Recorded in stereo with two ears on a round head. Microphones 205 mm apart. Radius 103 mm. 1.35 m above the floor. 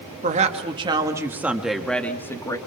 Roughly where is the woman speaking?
Right.